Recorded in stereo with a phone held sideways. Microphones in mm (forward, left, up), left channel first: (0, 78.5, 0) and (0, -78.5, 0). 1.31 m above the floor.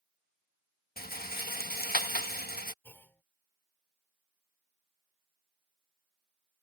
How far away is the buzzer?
I don't hear a buzzer.